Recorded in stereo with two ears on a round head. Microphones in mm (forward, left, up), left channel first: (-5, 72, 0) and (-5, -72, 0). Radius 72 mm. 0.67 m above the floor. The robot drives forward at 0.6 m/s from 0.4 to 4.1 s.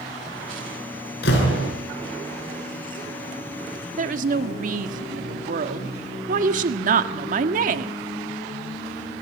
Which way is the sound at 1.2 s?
70° left (ahead or behind).